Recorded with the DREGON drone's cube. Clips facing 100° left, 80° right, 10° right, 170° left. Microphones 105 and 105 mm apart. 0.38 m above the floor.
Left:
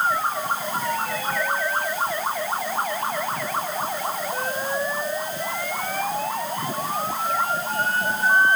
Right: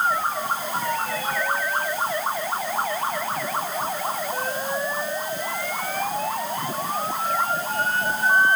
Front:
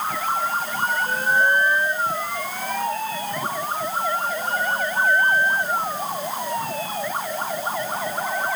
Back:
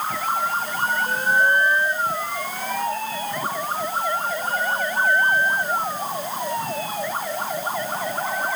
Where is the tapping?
I don't hear tapping.